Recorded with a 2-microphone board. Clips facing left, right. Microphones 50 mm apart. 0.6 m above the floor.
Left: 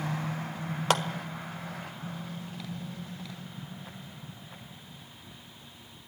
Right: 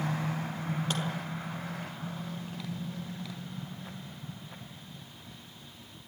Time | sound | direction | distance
0.9 | a clap | 70° left (ahead or behind) | 1.4 m